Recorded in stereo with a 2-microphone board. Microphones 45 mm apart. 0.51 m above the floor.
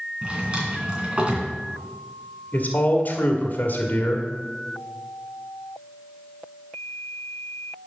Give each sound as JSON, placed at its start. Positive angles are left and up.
{"t": 0.2, "sound": "a drawer", "side_deg": -25, "distance_m": 2.5}
{"t": 2.5, "sound": "a man speaking", "side_deg": 40, "distance_m": 1.5}